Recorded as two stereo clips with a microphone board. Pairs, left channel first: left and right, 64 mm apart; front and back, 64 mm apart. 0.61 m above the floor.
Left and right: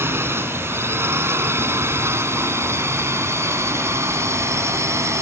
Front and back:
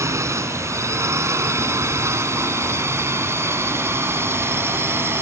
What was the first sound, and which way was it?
A drone, 140° right.